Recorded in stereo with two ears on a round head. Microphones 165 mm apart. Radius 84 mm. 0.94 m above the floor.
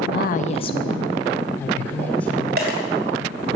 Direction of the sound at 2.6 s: 50° right (ahead or behind).